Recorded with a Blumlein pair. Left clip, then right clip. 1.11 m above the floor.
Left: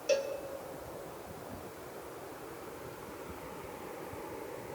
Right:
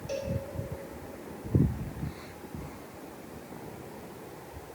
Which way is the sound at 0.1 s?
65° left.